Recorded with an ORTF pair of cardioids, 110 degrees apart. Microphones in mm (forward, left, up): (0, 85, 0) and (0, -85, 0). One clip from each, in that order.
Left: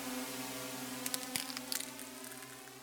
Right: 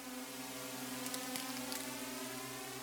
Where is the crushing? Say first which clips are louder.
Left 3 dB; 40° left.